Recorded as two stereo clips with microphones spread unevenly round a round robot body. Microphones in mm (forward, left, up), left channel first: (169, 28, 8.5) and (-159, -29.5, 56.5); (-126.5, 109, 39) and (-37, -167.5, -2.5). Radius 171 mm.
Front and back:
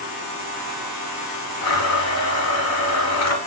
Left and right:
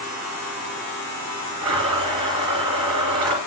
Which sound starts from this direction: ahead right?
A blender, at 1.6 s.